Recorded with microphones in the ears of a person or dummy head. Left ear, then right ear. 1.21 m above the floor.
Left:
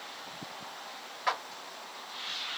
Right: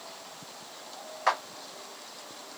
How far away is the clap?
About 1.0 m.